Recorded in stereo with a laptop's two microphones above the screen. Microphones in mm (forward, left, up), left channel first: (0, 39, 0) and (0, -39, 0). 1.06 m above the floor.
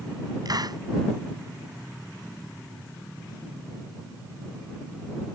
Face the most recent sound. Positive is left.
turn(degrees=-55)  # may be behind; listen again after turning